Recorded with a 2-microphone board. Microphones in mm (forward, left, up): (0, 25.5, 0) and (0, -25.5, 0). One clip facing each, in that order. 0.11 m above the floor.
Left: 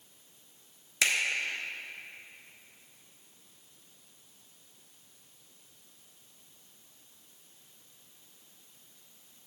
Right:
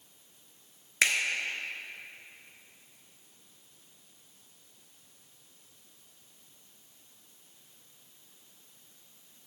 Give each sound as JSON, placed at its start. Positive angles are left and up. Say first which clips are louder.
{"t": 1.0, "sound": "a finger snap", "louder": "right 2 dB", "side_deg": -35, "distance_m": 1.2}